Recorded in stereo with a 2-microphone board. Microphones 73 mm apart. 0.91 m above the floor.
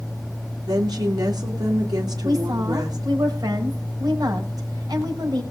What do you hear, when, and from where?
0.7 s a woman speaking: 70° right (ahead or behind), 3 m
2.2 s a woman speaking: 60° right (ahead or behind), 5.5 m